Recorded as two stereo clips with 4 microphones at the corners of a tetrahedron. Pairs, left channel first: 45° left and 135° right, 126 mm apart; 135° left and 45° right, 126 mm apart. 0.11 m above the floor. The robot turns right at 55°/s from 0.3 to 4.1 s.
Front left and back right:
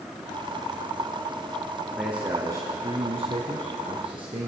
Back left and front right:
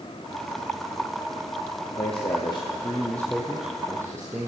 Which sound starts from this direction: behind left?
A man speaking, at 2.0 s.